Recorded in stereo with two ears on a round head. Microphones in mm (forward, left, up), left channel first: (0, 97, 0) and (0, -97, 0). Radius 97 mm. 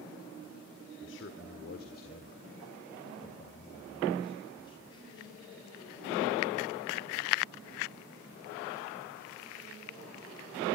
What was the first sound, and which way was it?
A man speaking, 60° left (ahead or behind).